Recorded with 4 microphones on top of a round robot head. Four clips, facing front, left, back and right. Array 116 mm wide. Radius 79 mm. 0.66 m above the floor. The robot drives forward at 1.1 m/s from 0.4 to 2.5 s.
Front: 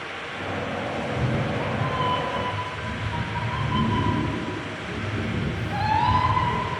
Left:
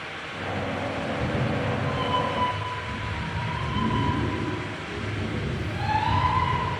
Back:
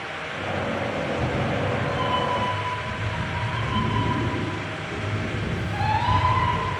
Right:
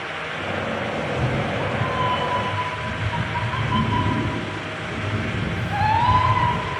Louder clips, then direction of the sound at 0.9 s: Right 4 dB, back 1 dB; 45° right.